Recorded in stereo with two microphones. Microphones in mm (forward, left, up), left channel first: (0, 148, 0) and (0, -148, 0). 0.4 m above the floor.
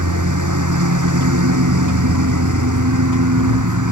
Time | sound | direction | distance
0.0 | a lawn mower | 90° right | ?